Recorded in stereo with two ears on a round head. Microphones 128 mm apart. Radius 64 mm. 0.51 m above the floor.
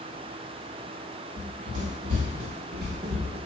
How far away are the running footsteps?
About 1.5 m.